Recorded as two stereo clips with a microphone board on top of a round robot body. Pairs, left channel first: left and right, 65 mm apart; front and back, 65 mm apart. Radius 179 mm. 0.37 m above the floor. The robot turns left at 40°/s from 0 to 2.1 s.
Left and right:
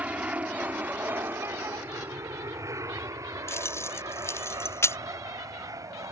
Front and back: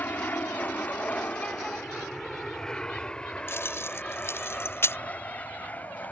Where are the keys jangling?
50° left.